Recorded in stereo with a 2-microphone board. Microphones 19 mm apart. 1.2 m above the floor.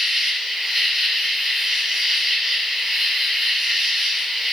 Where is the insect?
20° right (ahead or behind), 4.5 m.